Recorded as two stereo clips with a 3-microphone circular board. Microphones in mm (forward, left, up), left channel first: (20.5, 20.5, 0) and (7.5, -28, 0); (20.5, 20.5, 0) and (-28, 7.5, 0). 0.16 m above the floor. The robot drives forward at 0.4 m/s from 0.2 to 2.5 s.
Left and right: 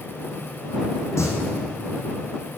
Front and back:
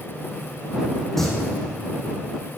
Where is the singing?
100° left, 3 m.